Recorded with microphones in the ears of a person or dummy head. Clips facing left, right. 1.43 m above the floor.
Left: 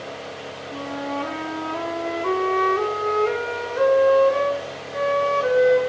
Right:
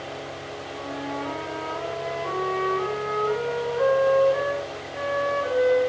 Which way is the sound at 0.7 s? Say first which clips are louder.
Left 4 dB; 75° left (ahead or behind).